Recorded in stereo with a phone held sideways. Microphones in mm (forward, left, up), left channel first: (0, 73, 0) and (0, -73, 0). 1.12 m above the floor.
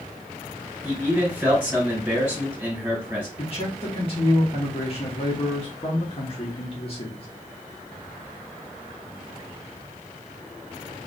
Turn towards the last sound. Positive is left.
turn(degrees=40)  # may be behind; listen again after turning